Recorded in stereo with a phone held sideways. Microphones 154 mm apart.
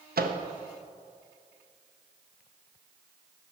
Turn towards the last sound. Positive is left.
turn(degrees=-80)